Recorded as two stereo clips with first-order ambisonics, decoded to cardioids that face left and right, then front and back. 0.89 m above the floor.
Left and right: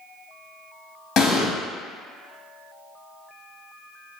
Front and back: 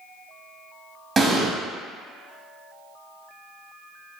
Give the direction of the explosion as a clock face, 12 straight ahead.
8 o'clock.